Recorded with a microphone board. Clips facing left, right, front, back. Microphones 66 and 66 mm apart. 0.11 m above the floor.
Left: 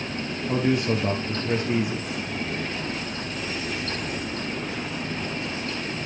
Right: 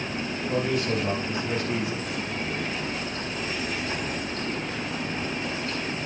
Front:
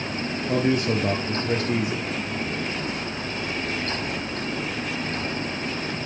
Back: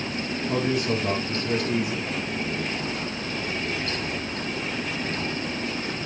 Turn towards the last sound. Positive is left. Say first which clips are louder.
# left 3 dB, front 3 dB
turn(degrees=30)